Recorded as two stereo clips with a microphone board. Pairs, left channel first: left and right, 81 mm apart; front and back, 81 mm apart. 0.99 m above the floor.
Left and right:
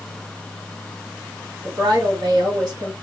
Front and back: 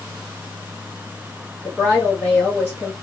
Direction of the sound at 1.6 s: 65° right.